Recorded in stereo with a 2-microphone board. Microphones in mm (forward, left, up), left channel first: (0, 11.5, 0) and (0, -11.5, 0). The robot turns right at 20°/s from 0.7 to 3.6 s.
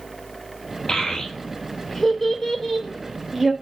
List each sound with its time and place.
0.9 s a child speaking: 35° left (ahead or behind), 0.6 m; by 3.5 s 5° right (ahead or behind), 0.6 m